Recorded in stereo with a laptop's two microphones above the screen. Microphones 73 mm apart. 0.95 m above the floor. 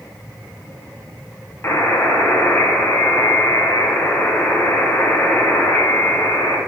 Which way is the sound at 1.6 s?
35° left (ahead or behind).